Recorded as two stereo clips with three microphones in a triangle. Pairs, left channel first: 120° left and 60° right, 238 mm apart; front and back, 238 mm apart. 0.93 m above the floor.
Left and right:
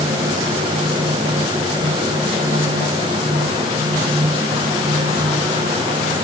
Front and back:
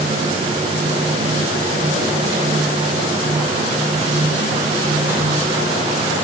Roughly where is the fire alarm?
I don't hear a fire alarm.